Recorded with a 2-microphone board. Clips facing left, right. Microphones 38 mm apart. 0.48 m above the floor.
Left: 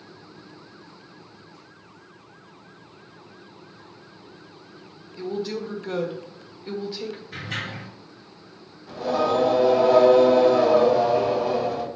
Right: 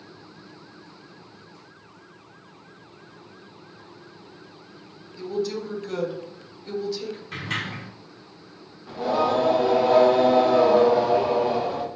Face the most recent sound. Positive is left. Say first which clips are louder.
# even
turn(degrees=-20)  # may be behind; listen again after turning